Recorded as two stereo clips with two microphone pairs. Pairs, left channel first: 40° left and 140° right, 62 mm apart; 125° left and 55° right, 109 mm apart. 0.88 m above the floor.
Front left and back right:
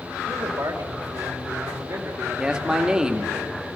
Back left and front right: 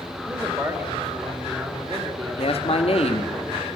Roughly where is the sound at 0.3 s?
Behind right.